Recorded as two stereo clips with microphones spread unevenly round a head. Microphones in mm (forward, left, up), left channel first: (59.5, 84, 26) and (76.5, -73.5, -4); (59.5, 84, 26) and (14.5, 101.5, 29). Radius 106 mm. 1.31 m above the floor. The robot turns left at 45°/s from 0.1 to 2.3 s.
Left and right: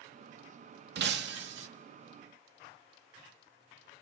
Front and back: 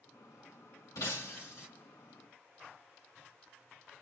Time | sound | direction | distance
0.9 | breaking glass | 65° right | 1.3 m